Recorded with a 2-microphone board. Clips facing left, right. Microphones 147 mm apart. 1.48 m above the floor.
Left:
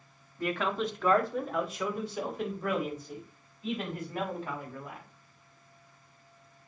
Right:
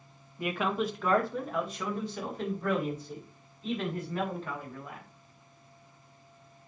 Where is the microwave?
No microwave in this recording.